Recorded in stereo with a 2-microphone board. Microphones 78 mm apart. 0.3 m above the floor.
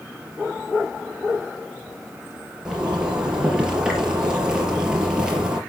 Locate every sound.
2.6 s a zipper: 10° right (ahead or behind), 4 m